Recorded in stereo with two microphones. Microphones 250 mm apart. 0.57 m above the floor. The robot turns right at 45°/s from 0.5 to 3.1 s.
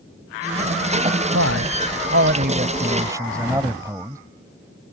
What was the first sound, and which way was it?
A man speaking, 90° right.